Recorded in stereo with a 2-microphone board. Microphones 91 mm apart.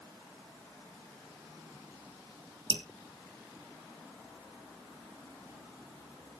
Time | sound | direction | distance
2.7 | dripping | 60° right (ahead or behind) | 1.0 m